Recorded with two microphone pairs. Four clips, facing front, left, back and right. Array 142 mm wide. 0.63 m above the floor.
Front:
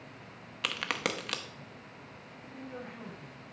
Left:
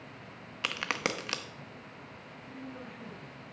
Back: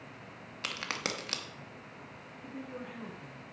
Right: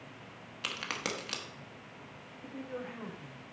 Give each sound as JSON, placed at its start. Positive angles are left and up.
{"t": 0.6, "sound": "a crack", "azimuth_deg": 50, "distance_m": 0.8}
{"t": 2.4, "sound": "a woman speaking", "azimuth_deg": -100, "distance_m": 3.0}